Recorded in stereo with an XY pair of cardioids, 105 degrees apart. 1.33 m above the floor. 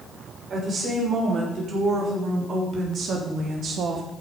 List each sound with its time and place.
0.5 s a woman speaking: 50° right, 5.5 m; by 4.0 s 60° right, 2.5 m